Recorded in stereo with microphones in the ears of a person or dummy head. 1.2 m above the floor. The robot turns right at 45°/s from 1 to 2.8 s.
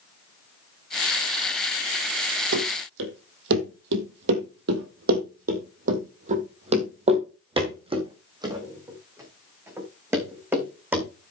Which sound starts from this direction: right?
Running footsteps, at 2.5 s.